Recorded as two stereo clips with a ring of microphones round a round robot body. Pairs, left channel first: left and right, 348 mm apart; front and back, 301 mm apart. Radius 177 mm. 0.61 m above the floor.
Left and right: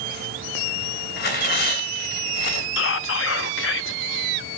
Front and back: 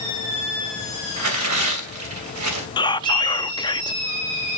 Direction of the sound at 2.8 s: 65° left.